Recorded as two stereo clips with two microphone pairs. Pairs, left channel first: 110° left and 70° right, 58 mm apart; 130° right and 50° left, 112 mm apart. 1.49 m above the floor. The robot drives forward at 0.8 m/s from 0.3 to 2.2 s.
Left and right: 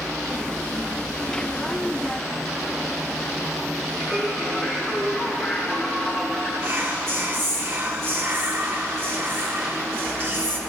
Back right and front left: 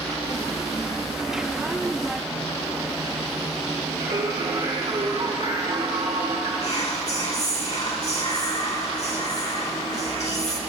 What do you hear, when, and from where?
4.0 s singing: 50° left, 3.5 m
6.6 s whispering: 115° right, 2.0 m